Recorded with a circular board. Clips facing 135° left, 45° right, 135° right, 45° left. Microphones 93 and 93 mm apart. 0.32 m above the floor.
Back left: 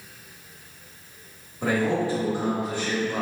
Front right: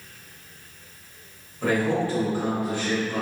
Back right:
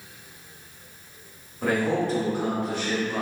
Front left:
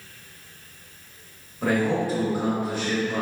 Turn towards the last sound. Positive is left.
turn(degrees=125)